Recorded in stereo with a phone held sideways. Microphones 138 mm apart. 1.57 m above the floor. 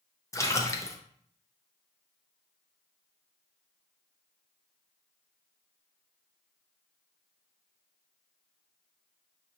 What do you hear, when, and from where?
0.3 s a splash: 20° left (ahead or behind), 0.6 m